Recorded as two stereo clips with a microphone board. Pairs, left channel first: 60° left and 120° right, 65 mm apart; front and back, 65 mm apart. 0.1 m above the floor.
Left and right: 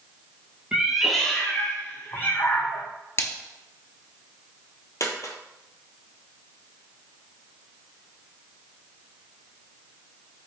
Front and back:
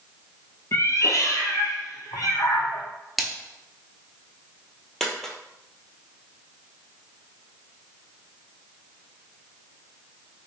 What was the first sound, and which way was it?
A cat meowing, 45° right.